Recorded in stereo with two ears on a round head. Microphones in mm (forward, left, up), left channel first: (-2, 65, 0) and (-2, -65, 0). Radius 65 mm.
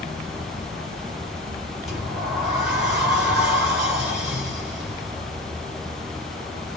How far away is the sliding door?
About 2.5 m.